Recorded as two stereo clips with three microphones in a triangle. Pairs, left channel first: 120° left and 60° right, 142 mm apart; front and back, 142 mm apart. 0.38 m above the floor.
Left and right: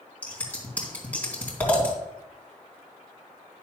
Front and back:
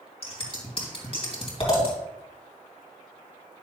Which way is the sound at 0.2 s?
40° left.